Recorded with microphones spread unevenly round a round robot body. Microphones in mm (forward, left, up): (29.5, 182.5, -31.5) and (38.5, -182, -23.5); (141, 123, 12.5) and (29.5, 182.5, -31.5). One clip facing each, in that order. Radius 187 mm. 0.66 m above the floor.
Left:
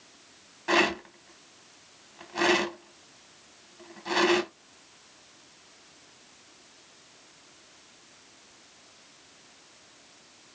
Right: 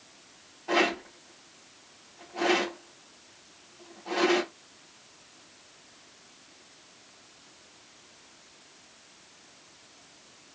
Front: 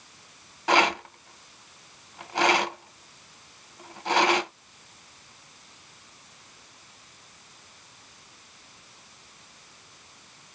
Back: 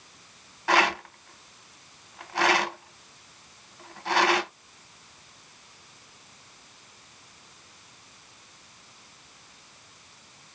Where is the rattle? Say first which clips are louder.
Left 1 dB, front 1 dB; 40° left, 0.9 m.